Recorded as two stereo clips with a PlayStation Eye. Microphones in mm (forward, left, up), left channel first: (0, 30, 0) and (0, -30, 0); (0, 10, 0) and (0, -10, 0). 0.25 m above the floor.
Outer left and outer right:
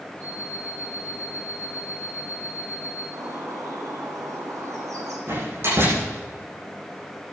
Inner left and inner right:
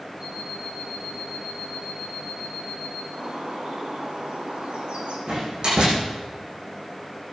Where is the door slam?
50° right (ahead or behind), 9.5 m.